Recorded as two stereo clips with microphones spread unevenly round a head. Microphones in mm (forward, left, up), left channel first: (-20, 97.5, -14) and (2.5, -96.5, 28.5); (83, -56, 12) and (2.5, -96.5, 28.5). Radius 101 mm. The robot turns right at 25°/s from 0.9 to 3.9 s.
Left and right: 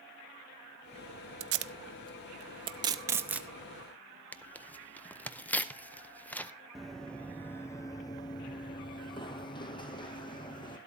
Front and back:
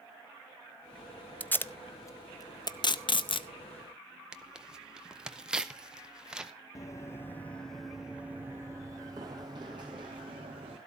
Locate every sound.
1.4 s tape being pulled: 45° right, 0.7 m; by 3.5 s 5° left, 0.7 m
4.3 s tearing paper: 110° left, 0.7 m
6.8 s running footsteps: 15° right, 1.1 m; by 10.8 s 170° left, 2.5 m